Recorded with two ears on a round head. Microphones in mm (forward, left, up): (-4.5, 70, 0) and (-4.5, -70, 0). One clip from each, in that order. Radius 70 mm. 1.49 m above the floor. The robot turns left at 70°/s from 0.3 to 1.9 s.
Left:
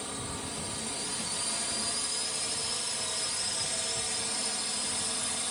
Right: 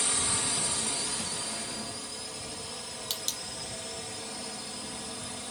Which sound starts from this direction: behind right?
A drone, at 0.0 s.